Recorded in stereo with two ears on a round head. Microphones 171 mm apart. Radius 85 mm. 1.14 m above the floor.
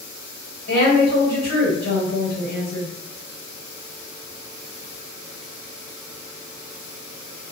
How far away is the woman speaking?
About 1.7 m.